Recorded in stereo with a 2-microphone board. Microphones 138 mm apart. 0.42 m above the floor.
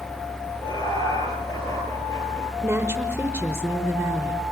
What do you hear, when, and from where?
0.6 s laughter: 30° left (ahead or behind), 7.5 m; by 2.5 s 20° left (ahead or behind), 8 m
2.6 s a woman speaking: 20° right (ahead or behind), 1.1 m